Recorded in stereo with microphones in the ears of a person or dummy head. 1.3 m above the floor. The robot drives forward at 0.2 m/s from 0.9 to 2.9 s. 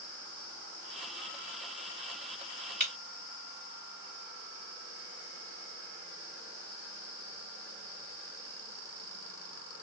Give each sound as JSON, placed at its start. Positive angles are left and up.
{"t": 2.8, "sound": "breaking glass", "side_deg": -45, "distance_m": 2.0}